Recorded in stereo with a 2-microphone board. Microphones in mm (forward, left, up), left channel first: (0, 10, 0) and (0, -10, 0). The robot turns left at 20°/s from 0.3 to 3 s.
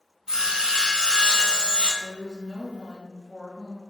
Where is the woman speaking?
30° right (ahead or behind), 1.8 m.